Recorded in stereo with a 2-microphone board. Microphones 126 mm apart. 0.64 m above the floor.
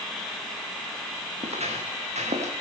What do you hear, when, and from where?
1.4 s footsteps: 55° right (ahead or behind), 5.5 m; by 2.5 s 65° right (ahead or behind), 6.5 m